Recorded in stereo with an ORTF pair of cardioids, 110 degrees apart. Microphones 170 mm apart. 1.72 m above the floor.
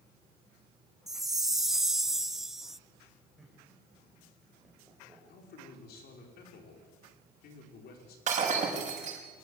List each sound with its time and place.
1.1 s a chime: straight ahead, 0.5 m
3.4 s laughter: 5° right, 7.5 m
5.3 s a man speaking: 70° left, 5.5 m
8.3 s breaking glass: 45° right, 6.5 m